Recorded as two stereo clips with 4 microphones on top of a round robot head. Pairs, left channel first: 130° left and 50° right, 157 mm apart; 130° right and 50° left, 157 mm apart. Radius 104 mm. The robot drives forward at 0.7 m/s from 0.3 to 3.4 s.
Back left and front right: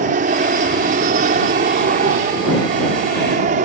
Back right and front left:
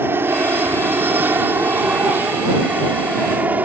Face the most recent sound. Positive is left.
turn(degrees=-25)